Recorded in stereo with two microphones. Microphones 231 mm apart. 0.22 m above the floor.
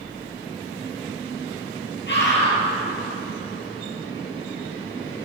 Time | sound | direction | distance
2.1 | a scream | 50° left (ahead or behind) | 4.5 m